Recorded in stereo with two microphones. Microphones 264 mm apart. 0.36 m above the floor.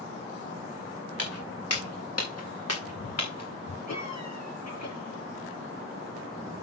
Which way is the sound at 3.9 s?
80° left.